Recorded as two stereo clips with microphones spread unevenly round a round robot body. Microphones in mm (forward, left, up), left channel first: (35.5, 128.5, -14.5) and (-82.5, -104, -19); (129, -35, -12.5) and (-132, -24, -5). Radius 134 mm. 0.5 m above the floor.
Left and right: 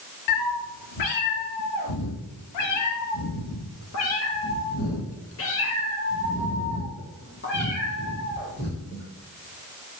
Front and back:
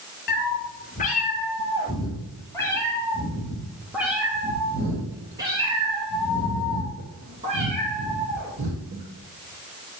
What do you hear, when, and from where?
0.3 s a cat meowing: 55° left, 2.5 m; by 9.0 s 115° left, 5.5 m